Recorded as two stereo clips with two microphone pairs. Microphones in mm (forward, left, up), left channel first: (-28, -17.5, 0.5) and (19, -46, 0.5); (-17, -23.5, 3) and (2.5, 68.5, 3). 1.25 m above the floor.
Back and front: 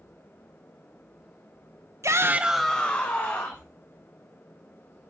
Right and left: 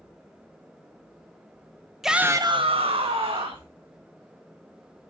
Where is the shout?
10° right, 0.8 m; by 3.7 s 105° left, 1.9 m.